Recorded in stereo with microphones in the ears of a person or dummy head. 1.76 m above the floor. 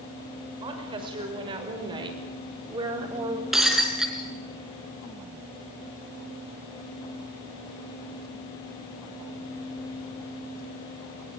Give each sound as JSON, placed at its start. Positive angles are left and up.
{"t": 0.6, "sound": "a woman speaking", "side_deg": -30, "distance_m": 6.0}
{"t": 3.5, "sound": "breaking glass", "side_deg": -5, "distance_m": 3.5}